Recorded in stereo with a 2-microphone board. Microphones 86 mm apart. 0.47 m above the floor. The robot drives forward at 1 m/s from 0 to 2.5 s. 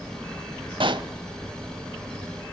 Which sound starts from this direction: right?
A pop, at 0.8 s.